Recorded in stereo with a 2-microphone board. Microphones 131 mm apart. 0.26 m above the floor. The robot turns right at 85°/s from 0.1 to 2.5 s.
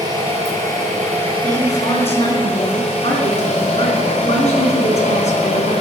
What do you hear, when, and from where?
0.0 s an engine running: 145° right, 5 m; by 5.8 s 55° left, 5 m
1.4 s a woman speaking: 5° left, 3 m; by 5.7 s 95° left, 3 m